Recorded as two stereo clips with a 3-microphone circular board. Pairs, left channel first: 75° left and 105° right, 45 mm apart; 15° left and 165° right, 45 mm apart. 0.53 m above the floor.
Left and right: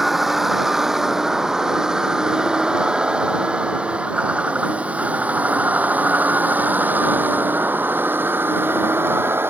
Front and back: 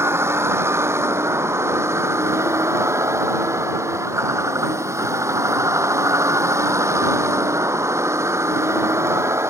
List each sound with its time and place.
0.0 s a vehicle: 170° left; by 9.5 s 145° right